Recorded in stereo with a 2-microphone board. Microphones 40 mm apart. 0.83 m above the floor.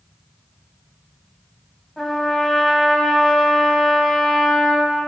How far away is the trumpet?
About 2.5 m.